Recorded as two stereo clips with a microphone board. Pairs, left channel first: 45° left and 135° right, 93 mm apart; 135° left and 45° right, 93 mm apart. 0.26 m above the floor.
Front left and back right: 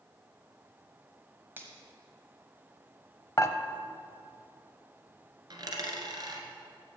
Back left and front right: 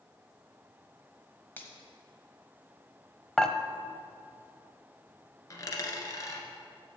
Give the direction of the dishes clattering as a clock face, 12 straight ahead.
10 o'clock.